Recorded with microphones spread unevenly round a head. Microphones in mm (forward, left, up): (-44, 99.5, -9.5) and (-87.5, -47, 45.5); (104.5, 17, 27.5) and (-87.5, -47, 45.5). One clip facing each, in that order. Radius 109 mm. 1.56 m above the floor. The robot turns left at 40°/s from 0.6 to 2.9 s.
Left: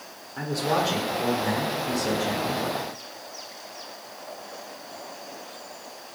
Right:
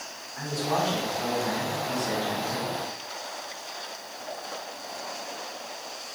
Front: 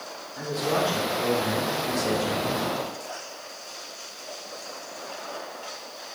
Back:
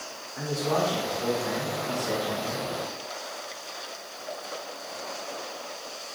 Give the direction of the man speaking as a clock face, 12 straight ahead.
8 o'clock.